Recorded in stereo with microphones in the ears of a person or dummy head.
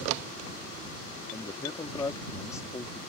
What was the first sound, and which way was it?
A man speaking, 25° left (ahead or behind).